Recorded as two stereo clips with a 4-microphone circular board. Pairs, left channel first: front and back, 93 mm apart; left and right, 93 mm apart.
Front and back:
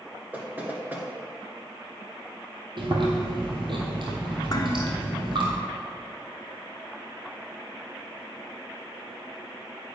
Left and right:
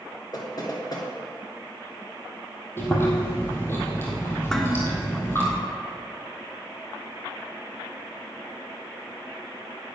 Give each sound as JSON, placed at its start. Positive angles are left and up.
{"t": 0.3, "sound": "knocking", "azimuth_deg": 115, "distance_m": 1.7}
{"t": 2.8, "sound": "chewing", "azimuth_deg": 155, "distance_m": 2.5}
{"t": 4.5, "sound": "dishes clattering", "azimuth_deg": 5, "distance_m": 1.1}